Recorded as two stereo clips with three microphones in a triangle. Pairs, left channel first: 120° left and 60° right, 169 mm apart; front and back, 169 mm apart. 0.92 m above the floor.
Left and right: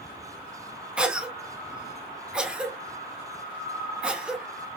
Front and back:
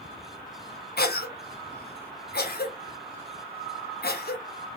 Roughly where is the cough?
Ahead left.